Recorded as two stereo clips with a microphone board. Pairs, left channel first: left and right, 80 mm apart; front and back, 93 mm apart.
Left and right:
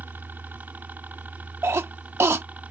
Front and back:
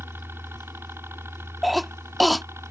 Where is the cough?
90° right.